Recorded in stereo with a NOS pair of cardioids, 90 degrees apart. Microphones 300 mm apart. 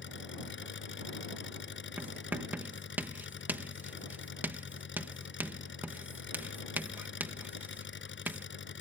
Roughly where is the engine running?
Ahead left.